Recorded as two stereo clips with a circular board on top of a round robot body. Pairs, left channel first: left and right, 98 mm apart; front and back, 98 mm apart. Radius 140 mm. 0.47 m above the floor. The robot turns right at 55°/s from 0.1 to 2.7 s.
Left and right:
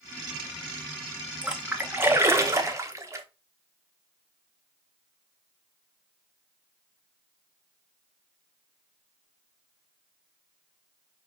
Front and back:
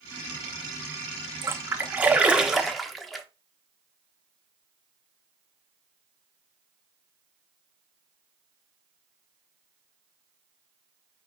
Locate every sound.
1.4 s a splash: 160° right, 1.0 m; by 3.3 s 90° right, 1.0 m